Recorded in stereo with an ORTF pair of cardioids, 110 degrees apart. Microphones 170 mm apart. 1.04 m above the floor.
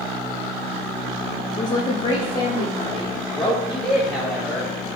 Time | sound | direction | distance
1.6 | a woman speaking | 20° left | 0.6 m
3.3 | a man speaking | straight ahead | 1.2 m